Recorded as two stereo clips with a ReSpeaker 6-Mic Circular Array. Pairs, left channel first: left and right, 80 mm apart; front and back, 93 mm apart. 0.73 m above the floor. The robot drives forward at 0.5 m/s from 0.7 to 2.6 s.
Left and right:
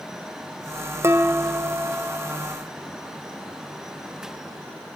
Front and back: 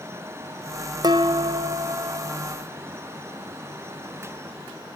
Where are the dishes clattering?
145° right, 0.7 m; by 2.4 s 160° right, 1.3 m.